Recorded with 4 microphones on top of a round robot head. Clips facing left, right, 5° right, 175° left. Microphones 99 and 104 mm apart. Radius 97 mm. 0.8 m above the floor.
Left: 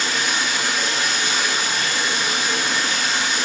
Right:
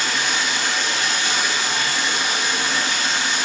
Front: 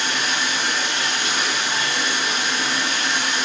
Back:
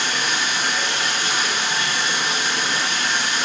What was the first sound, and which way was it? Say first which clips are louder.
Running water: even, even; 130° left.